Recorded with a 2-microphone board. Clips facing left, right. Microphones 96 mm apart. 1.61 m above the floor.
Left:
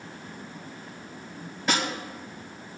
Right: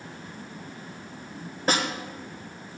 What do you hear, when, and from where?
1.7 s a snare drum: 40° right (ahead or behind), 2.5 m